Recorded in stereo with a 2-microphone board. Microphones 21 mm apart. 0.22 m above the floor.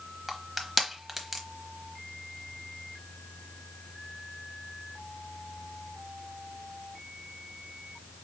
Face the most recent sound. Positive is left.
turn(degrees=0)  # may be behind; listen again after turning